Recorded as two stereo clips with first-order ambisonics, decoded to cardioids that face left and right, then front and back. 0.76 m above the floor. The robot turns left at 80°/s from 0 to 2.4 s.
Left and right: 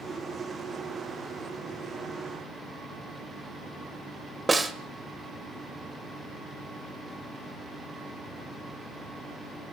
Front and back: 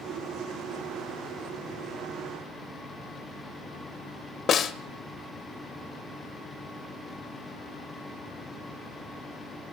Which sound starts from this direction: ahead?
A snare drum, at 4.5 s.